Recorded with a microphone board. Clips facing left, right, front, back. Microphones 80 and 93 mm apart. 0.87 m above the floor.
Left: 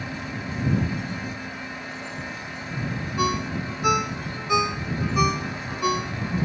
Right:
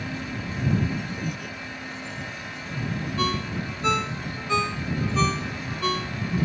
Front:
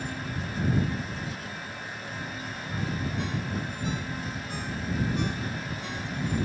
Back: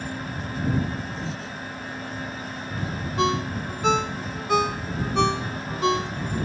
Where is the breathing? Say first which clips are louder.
Right 1 dB, back 4 dB; 115° right.